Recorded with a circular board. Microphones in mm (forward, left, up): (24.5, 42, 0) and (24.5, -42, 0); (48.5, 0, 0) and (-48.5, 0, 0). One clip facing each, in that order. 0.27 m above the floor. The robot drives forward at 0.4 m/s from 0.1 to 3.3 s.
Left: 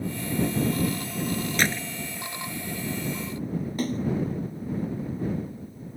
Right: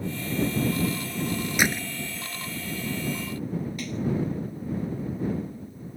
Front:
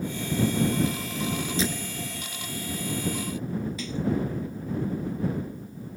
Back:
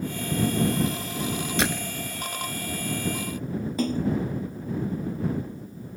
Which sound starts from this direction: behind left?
A splash, at 3.8 s.